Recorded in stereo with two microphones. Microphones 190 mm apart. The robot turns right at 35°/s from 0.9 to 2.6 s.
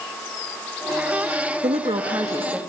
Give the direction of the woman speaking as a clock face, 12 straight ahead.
1 o'clock.